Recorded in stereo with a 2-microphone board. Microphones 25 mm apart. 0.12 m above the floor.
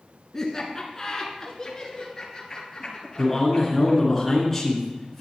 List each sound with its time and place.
0.3 s laughter: 20° left (ahead or behind), 1.2 m; by 4.0 s 25° left (ahead or behind), 3 m
3.2 s a man speaking: 15° left (ahead or behind), 1.6 m